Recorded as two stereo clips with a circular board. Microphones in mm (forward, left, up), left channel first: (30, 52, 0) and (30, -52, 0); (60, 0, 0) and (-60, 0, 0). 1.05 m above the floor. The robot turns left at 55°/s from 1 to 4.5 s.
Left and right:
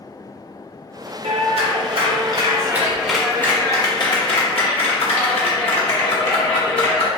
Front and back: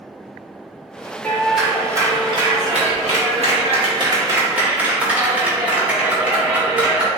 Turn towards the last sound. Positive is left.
turn(degrees=105)